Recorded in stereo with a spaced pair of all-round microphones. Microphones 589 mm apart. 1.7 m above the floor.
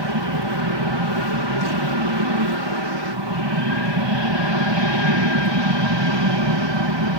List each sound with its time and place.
0.0 s an aircraft: 45° right (ahead or behind)